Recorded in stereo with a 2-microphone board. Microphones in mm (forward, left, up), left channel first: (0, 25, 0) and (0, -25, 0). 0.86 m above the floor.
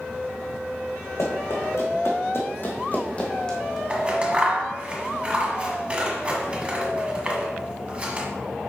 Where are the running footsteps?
70° left (ahead or behind), 2.5 m; by 3.8 s 5° left (ahead or behind), 1.9 m.